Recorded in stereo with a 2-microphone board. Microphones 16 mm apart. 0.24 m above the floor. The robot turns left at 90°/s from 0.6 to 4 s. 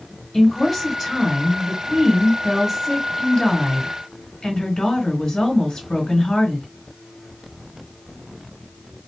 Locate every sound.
0.3 s a woman speaking: 15° left, 3.5 m; by 6.7 s 70° left, 3.5 m